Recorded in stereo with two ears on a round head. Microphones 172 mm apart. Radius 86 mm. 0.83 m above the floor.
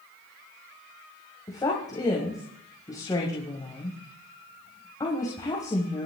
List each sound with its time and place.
1.5 s a woman speaking: 20° left (ahead or behind), 5 m